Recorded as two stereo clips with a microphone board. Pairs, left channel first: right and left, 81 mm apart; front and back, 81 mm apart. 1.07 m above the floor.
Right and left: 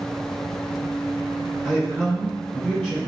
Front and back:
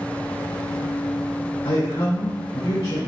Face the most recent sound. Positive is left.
turn(degrees=0)